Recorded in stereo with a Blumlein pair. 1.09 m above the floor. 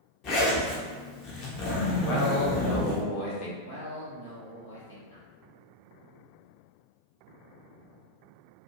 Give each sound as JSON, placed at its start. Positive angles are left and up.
{"t": 0.2, "sound": "a zipper", "azimuth_deg": 35, "distance_m": 0.8}
{"t": 2.0, "sound": "a man speaking", "azimuth_deg": 45, "distance_m": 1.1}
{"t": 3.6, "sound": "a man speaking", "azimuth_deg": 65, "distance_m": 1.3}